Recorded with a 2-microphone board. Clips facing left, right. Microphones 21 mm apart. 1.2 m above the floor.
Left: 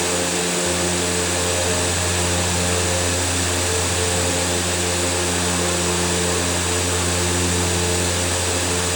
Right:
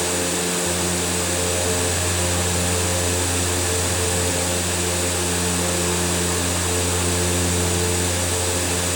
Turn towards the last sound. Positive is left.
No sound to turn to.